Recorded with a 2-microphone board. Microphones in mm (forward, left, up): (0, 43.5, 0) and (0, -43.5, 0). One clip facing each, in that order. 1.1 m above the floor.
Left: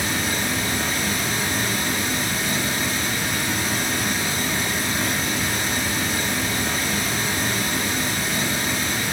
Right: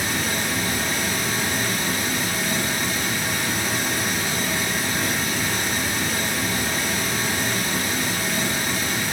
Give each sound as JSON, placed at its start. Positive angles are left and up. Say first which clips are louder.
{"t": 0.0, "sound": "running water", "louder": "left 1 dB", "side_deg": 0, "distance_m": 1.0}